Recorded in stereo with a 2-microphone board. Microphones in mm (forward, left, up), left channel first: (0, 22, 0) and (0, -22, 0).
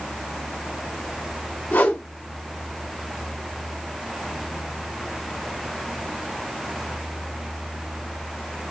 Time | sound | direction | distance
1.7 | a whoosh | 50° left (ahead or behind) | 1.6 m